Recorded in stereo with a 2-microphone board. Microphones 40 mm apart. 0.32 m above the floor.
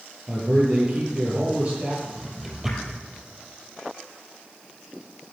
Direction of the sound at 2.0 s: 5° right (ahead or behind).